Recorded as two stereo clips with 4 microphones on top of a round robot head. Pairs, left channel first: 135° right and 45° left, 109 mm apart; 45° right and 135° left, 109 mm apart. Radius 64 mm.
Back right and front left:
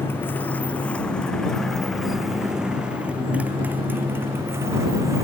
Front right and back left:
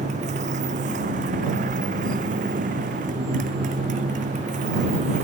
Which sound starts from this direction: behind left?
A motorcycle, at 0.0 s.